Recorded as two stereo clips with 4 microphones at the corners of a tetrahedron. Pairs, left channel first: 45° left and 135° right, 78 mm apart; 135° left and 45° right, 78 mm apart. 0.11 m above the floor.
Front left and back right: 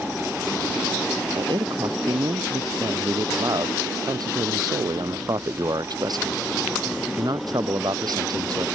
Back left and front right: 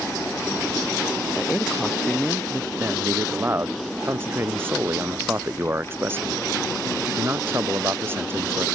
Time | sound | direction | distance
1.4 | a man speaking | 140° right | ?
2.8 | a man speaking | 105° right | ?